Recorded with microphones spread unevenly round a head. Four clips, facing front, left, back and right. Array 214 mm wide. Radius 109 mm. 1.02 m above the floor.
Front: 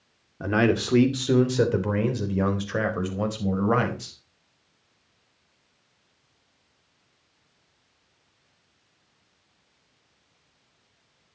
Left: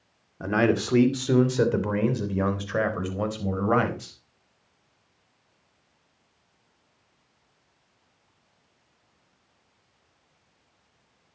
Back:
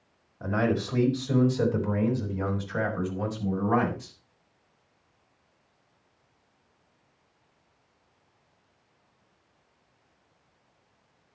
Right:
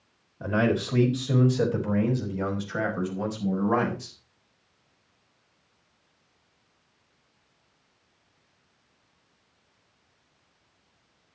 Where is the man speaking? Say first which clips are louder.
Left 2 dB, front 4 dB; 25° left, 2.5 m; by 4.2 s 35° left, 5 m.